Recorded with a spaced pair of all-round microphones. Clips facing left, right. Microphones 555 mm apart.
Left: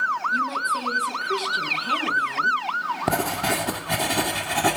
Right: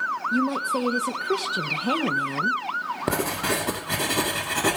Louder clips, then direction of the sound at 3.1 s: Even; 10° left (ahead or behind).